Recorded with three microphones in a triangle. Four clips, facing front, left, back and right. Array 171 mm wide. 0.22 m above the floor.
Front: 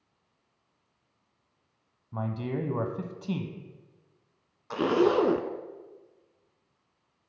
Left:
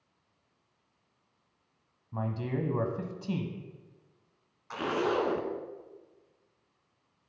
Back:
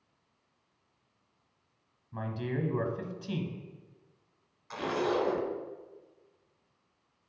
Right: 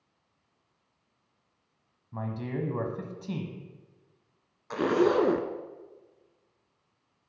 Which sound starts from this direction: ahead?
A man speaking, at 2.1 s.